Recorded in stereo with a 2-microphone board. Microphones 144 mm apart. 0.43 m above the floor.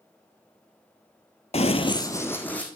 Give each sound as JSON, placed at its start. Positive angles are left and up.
{"t": 1.5, "sound": "running footsteps", "side_deg": 45, "distance_m": 0.5}